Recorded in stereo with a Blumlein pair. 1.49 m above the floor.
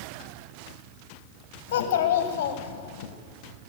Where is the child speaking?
50° left, 1.2 m.